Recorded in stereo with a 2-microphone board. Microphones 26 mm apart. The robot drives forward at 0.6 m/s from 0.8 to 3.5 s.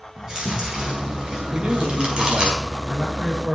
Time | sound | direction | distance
0.2 | chewing | 30° right (ahead or behind) | 5 m
1.5 | a man speaking | 65° right (ahead or behind) | 2.5 m